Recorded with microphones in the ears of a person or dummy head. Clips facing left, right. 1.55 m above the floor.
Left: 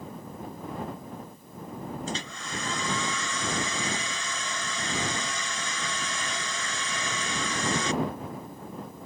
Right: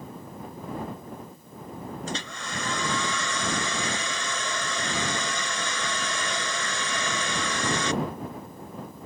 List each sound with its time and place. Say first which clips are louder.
2.1 s a hair dryer: right 1 dB; 55° right (ahead or behind)